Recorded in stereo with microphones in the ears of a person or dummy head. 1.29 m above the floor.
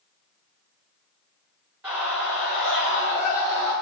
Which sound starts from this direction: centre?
A scream, at 1.8 s.